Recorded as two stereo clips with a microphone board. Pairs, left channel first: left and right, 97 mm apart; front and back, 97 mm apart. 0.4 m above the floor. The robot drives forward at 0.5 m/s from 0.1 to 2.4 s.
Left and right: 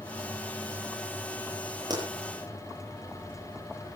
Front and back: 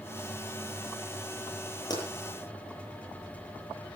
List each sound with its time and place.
1.9 s a pop: 45° right, 9 m